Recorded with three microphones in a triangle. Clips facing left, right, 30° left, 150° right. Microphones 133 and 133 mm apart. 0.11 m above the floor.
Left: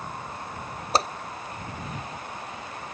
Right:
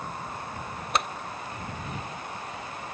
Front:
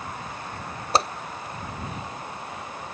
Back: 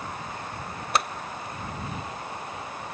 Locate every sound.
0.9 s a whoosh: 65° left